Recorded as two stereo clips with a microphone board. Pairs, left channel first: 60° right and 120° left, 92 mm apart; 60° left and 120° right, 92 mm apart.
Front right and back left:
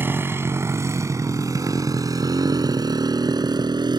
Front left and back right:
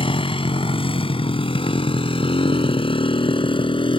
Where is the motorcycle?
55° left; by 4.0 s 80° left.